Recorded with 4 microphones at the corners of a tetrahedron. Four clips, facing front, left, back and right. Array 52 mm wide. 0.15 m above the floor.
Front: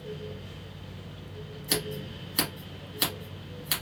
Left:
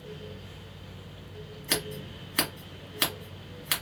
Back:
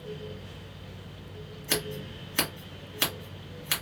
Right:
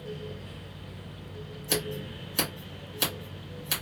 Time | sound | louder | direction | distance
1.7 | scissors | right 1 dB, even | 120° left | 1.8 m